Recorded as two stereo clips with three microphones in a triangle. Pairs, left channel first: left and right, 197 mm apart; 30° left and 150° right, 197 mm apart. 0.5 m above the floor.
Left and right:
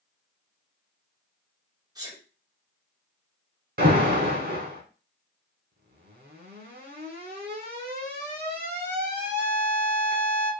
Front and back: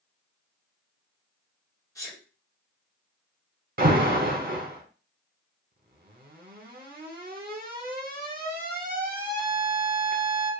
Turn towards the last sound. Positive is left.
turn(degrees=-115)